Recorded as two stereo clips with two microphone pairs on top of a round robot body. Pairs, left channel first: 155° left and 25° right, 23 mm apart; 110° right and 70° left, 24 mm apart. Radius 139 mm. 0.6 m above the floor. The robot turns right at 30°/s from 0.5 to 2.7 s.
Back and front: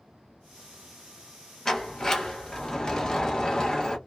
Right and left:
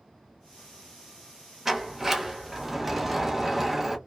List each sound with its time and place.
1.6 s a sliding door: 80° left, 1.2 m; by 4.0 s 115° left, 1.2 m